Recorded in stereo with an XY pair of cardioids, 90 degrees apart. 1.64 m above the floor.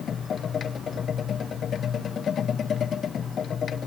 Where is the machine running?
60° left, 1.1 m.